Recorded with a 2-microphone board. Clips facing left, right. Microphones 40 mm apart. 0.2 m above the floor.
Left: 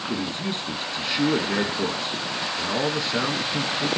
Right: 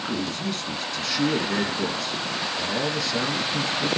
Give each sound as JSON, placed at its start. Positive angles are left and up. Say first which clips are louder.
{"t": 0.1, "sound": "a man speaking", "louder": "left 1 dB", "side_deg": 25, "distance_m": 1.7}